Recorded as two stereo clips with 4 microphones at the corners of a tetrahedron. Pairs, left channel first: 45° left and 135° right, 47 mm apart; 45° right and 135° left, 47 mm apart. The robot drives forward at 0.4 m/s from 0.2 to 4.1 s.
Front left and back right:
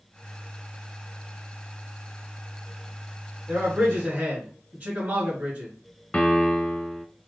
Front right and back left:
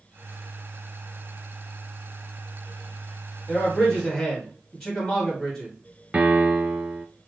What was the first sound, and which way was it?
A man speaking, 120° right.